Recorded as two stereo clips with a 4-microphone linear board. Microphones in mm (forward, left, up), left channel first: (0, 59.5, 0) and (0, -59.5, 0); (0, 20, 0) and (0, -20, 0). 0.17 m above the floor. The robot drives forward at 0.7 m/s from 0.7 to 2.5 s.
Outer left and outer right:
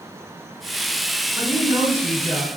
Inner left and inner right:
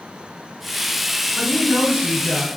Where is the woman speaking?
25° right (ahead or behind), 1.9 m; by 2.5 s 20° right (ahead or behind), 2.5 m.